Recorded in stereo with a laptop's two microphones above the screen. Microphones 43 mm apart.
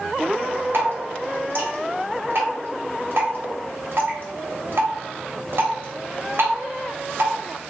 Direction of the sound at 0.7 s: 55° right (ahead or behind).